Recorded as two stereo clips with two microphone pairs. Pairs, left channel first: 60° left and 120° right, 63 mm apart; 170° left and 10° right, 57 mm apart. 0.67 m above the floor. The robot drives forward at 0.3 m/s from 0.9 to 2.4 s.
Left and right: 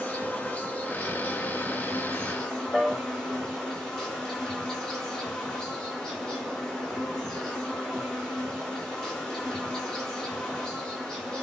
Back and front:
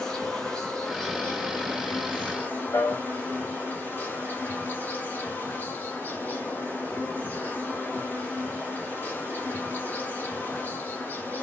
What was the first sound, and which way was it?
An insect, 100° left.